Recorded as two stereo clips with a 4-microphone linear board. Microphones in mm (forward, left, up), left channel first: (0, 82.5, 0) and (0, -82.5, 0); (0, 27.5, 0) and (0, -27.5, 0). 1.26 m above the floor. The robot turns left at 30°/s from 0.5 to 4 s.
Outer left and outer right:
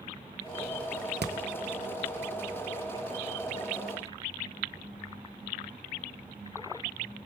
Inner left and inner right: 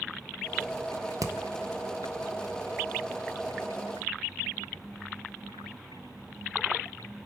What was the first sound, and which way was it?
Hammering, 80° right.